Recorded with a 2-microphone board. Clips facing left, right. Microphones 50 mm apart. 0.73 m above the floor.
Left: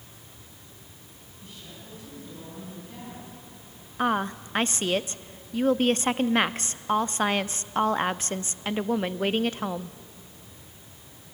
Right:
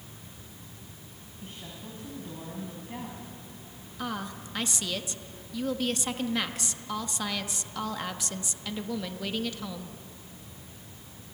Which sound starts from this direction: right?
A woman speaking, at 1.4 s.